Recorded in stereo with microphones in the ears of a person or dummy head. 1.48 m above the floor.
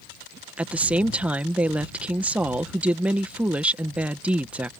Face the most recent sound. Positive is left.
turn(degrees=-10)  # may be behind; listen again after turning